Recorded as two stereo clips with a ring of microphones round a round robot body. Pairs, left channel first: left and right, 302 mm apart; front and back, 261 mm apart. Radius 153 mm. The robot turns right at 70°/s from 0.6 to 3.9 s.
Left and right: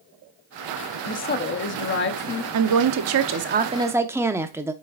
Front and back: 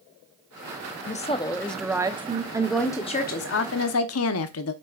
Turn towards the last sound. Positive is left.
turn(degrees=-10)